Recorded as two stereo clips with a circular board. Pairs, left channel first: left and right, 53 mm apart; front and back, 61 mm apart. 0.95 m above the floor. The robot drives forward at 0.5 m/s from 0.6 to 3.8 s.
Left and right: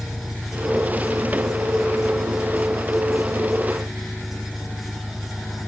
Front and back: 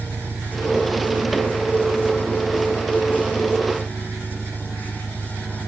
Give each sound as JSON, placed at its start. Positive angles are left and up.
{"t": 0.0, "sound": "an engine running", "azimuth_deg": 180}